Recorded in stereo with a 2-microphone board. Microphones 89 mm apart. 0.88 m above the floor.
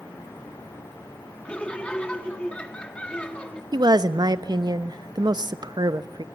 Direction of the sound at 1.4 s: 10° left (ahead or behind).